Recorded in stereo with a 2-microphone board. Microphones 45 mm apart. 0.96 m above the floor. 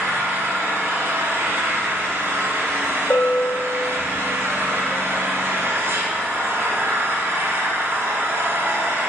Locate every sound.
0.0 s an engine running: 70° right (ahead or behind), 1.2 m
3.1 s a bell: 55° left (ahead or behind), 0.8 m